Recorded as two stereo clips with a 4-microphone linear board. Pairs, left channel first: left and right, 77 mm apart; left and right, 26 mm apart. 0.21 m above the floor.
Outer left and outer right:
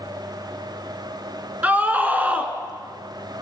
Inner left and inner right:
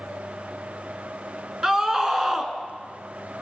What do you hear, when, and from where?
1.6 s a scream: 20° right (ahead or behind), 2.5 m